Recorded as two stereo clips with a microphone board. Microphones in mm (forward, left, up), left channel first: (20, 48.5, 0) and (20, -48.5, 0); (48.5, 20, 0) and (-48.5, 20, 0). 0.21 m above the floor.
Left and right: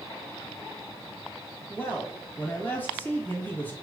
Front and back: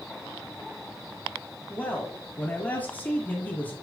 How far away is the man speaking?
About 1.1 m.